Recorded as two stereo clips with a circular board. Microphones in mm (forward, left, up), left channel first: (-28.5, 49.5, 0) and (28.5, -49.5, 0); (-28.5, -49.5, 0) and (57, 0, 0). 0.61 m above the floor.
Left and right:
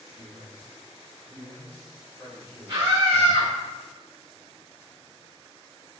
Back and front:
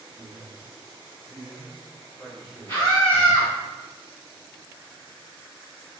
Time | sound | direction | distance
0.1 | a man speaking | 175° right | 1.7 m
2.7 | a scream | 110° right | 1.5 m